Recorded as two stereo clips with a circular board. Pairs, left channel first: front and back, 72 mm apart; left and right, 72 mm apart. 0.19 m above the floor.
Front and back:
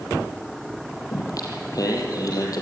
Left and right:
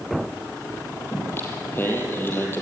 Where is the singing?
30° left, 4.5 m.